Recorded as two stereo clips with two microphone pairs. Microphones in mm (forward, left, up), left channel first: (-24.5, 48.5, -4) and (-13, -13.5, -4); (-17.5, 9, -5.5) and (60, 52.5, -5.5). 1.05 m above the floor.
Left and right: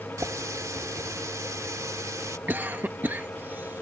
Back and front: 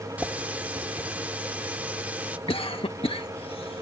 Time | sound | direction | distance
0.2 | a running tap | 45° right | ?
2.5 | a cough | 140° right | ?